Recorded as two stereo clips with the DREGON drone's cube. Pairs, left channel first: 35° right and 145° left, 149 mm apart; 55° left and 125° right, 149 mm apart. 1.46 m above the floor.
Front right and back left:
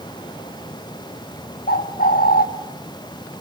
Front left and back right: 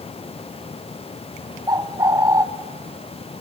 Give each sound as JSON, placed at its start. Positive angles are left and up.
{"t": 1.7, "sound": "a bird", "azimuth_deg": -55, "distance_m": 1.4}